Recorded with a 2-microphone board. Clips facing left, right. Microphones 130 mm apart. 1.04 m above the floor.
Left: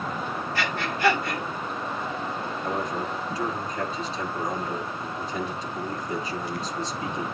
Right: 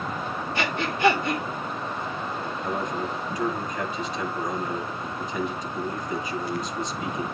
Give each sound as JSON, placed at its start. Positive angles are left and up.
{"t": 0.6, "sound": "breathing", "side_deg": -20, "distance_m": 3.5}
{"t": 2.6, "sound": "a man speaking", "side_deg": 30, "distance_m": 9.0}